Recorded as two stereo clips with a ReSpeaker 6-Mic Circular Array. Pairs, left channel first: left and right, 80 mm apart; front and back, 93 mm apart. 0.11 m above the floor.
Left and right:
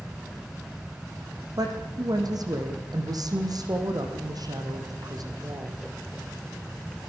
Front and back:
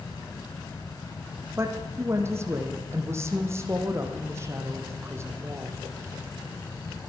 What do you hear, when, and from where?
1.6 s a woman speaking: 120° right, 5 m